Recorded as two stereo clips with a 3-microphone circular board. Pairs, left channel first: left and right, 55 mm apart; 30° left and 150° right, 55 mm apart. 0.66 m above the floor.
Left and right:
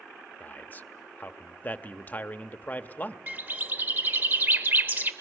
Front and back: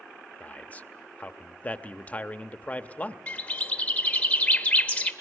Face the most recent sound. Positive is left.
turn(degrees=-35)